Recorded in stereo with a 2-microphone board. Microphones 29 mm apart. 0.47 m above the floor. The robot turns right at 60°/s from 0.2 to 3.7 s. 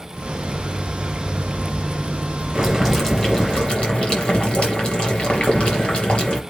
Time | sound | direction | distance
2.5 | boiling | 35° right | 4 m